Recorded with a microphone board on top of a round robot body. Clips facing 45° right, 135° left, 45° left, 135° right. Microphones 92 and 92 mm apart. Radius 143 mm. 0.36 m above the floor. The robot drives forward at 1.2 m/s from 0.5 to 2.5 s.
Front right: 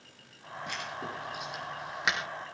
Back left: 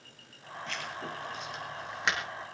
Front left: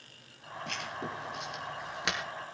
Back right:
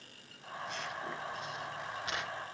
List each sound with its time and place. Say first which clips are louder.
0.7 s writing: front right 1 dB, front left 2 dB; 30° left, 6 m; by 2.2 s 40° left, 4.5 m